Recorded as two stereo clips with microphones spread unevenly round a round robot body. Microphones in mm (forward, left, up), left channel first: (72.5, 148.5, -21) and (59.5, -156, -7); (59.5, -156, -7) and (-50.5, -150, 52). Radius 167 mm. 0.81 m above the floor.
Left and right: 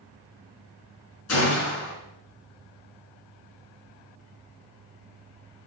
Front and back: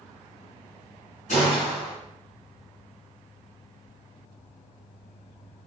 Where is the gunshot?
45° left, 4 m.